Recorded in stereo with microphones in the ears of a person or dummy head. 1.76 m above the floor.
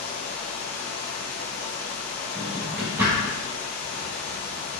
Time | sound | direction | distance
0.0 | running water | 55° left (ahead or behind) | 1.2 m
2.4 | a drawer | 10° right (ahead or behind) | 1.3 m